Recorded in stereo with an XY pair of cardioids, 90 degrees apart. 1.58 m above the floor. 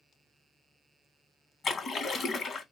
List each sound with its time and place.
1.6 s a splash: 45° left, 1.2 m